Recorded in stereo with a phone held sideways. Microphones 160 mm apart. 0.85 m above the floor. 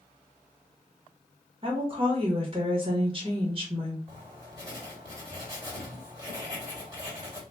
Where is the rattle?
No rattle in this recording.